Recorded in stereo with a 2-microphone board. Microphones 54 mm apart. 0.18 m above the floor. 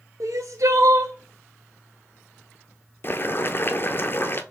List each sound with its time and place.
0.2 s crying: 75° right (ahead or behind), 0.8 m
3.0 s boiling: 40° left (ahead or behind), 0.6 m